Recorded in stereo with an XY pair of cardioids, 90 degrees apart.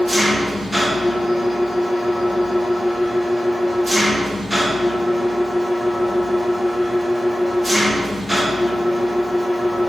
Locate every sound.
0.0 s an engine running: 10° right, 2.5 m